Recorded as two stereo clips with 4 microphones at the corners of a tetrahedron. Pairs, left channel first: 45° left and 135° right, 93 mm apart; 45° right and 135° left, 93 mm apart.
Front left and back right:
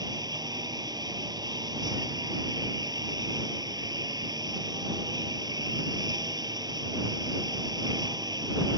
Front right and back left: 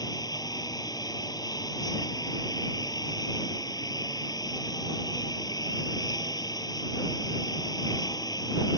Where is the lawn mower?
90° right.